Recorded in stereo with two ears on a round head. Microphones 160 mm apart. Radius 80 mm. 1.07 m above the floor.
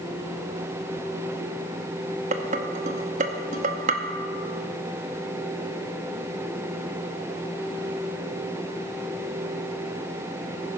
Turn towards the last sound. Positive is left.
turn(degrees=-45)  # may be behind; listen again after turning